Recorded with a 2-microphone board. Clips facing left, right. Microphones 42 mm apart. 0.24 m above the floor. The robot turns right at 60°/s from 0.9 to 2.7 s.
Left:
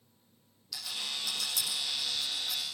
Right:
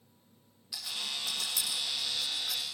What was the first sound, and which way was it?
A rattle, 15° right (ahead or behind).